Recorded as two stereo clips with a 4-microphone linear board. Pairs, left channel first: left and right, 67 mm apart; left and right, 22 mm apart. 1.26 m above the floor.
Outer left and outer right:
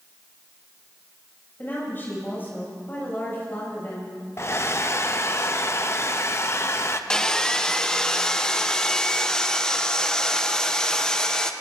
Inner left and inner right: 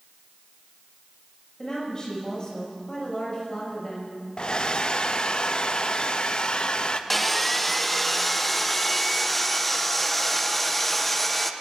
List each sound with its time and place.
1.6 s a woman speaking: 35° left (ahead or behind), 6.5 m
4.4 s a hair dryer: 45° left (ahead or behind), 0.6 m
7.1 s sawing: 10° left (ahead or behind), 0.6 m